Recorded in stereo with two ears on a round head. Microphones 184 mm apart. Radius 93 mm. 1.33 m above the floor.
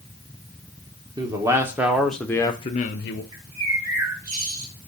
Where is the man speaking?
20° right (ahead or behind), 1.3 m; by 3.2 s 60° left (ahead or behind), 0.7 m.